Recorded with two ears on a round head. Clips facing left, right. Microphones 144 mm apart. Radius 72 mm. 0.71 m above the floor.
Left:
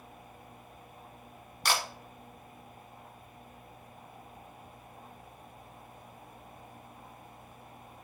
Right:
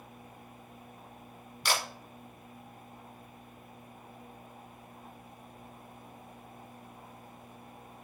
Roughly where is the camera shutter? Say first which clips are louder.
Left 1 dB; left.